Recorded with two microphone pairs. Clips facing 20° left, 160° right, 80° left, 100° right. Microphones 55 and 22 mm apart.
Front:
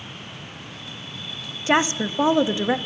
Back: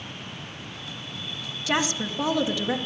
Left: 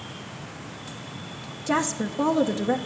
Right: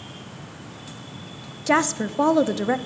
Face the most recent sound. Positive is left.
turn(degrees=-45)